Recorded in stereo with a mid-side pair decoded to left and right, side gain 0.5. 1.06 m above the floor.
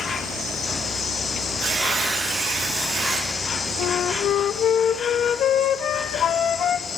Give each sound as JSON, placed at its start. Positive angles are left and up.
{"t": 0.0, "sound": "an insect", "azimuth_deg": 45, "distance_m": 1.3}
{"t": 1.6, "sound": "tearing paper", "azimuth_deg": -65, "distance_m": 9.0}
{"t": 3.8, "sound": "a flute", "azimuth_deg": 60, "distance_m": 0.8}